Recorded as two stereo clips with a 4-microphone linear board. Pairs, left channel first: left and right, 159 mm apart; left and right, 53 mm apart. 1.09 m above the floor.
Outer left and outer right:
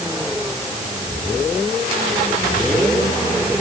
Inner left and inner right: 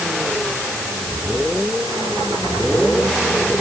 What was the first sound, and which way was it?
Only background noise.